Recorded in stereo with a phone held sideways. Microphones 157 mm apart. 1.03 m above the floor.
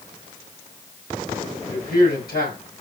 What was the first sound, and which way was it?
A man speaking, 75° left (ahead or behind).